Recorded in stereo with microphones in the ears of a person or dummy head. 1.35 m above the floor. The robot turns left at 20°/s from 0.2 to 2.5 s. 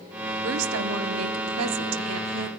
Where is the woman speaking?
70° right, 0.8 m; by 2.5 s 110° right, 0.8 m.